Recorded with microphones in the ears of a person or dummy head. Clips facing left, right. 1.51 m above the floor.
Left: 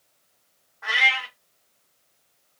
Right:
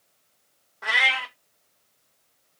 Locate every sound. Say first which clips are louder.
0.8 s a cat meowing: even; 45° right (ahead or behind), 1.1 m